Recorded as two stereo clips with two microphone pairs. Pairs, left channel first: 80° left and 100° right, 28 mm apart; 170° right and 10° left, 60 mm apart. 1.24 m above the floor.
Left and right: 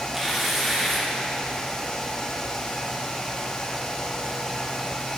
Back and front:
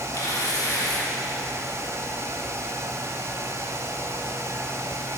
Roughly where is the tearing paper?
Behind.